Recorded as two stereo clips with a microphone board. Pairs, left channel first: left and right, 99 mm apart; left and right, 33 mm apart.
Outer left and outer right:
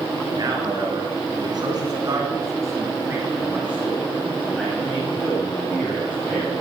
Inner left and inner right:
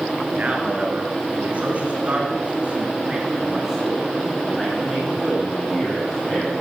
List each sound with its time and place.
0.3 s a man speaking: 45° right (ahead or behind), 3 m; by 6.5 s 15° left (ahead or behind), 4 m